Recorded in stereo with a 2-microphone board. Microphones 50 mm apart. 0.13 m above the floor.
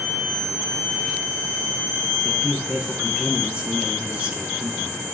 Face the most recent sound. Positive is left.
turn(degrees=-25)  # may be behind; listen again after turning